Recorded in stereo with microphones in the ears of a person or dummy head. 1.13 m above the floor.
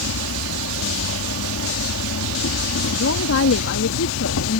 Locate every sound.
0.0 s an insect: 70° left (ahead or behind)
2.9 s a woman speaking: 85° left